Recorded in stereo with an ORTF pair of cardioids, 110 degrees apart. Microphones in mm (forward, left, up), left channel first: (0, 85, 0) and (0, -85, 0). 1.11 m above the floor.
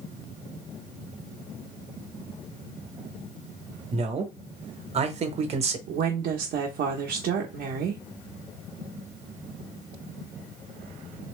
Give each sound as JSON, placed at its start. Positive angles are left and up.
{"t": 3.9, "sound": "a man speaking", "azimuth_deg": -40, "distance_m": 1.1}
{"t": 5.9, "sound": "a woman speaking", "azimuth_deg": -65, "distance_m": 1.0}